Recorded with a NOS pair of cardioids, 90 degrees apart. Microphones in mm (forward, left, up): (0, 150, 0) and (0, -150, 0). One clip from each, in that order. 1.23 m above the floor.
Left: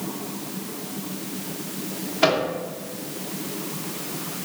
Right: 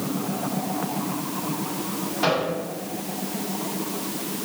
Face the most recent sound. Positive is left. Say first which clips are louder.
# left 3 dB
turn(degrees=45)